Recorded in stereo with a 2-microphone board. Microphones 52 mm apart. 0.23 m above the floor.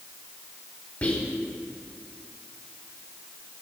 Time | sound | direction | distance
1.0 | whispering | 30° left (ahead or behind) | 1.1 m